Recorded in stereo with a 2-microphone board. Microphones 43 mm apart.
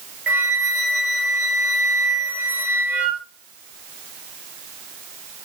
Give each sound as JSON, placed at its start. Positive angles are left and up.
{"t": 0.3, "sound": "a flute", "side_deg": -40, "distance_m": 2.5}